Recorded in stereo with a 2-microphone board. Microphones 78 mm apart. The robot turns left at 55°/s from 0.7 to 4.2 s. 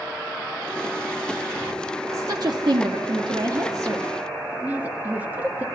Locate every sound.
2.1 s a woman speaking: 45° right (ahead or behind), 2.0 m; by 5.7 s 25° right (ahead or behind), 2.0 m